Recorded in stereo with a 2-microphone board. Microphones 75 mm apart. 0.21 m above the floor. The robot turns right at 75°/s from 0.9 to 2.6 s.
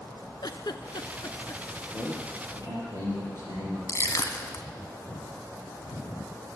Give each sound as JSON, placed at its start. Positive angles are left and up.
{"t": 0.4, "sound": "a giggle", "side_deg": 75, "distance_m": 0.6}
{"t": 1.9, "sound": "a man speaking", "azimuth_deg": -175, "distance_m": 6.5}
{"t": 3.9, "sound": "crushing", "side_deg": 40, "distance_m": 1.0}